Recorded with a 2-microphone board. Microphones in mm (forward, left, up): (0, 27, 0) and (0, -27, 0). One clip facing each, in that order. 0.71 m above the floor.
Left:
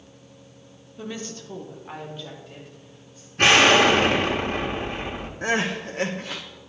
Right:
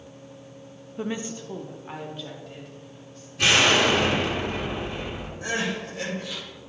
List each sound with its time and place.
1.0 s a woman speaking: 30° right (ahead or behind), 0.9 m; by 3.3 s 5° left (ahead or behind), 4 m
3.4 s an explosion: 55° left (ahead or behind), 1.4 m
5.4 s crying: 55° left (ahead or behind), 1.2 m